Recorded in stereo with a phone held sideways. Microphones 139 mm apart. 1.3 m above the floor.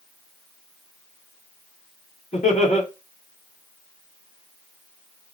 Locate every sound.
2.3 s laughter: 60° left (ahead or behind), 3.5 m